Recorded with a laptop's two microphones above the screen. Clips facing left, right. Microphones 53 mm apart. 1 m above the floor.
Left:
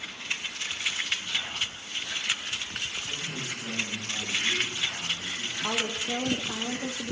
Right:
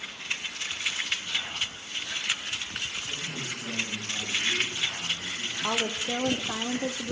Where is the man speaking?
40° left (ahead or behind), 8 m.